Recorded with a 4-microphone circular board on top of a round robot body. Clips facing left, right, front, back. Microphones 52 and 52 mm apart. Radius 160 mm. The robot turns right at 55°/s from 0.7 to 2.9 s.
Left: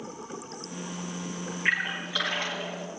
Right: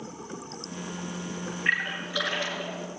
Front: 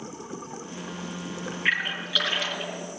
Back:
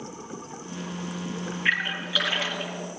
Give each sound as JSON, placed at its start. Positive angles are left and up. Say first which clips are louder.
{"t": 1.6, "sound": "a splash", "louder": "even, back 1 dB", "azimuth_deg": 65, "distance_m": 3.5}